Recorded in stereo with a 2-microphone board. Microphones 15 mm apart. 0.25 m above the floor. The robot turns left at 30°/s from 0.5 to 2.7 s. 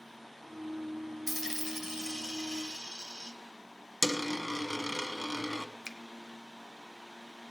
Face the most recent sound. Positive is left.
turn(degrees=-30)  # may be behind; listen again after turning